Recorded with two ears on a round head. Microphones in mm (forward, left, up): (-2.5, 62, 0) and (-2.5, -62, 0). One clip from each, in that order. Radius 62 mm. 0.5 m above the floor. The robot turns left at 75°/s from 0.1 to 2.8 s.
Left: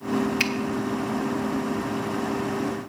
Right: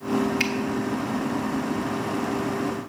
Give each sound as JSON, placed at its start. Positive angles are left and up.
{"t": 0.4, "sound": "a finger snap", "side_deg": 15, "distance_m": 0.9}